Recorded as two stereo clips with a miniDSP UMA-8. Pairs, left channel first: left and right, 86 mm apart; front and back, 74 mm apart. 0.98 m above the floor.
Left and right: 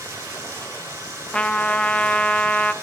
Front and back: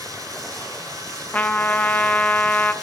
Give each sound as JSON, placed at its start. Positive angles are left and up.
{"t": 0.0, "sound": "running water", "azimuth_deg": -145, "distance_m": 4.0}
{"t": 1.3, "sound": "a trumpet", "azimuth_deg": 35, "distance_m": 0.6}